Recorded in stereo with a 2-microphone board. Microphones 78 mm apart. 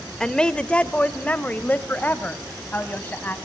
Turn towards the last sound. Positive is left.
turn(degrees=25)  # may be behind; listen again after turning